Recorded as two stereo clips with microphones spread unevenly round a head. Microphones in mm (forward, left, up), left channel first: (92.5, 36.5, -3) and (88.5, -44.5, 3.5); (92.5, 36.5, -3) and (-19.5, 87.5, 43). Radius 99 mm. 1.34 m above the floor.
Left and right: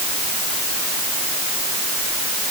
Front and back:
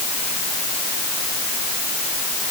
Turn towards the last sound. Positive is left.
No sound to turn to.